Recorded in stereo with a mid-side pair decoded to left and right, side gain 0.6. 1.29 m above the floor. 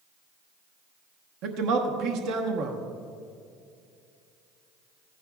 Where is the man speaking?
70° right, 1.1 m.